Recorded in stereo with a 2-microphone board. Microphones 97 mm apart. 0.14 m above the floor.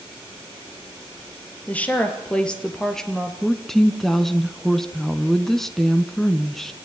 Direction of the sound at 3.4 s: 5° left (ahead or behind).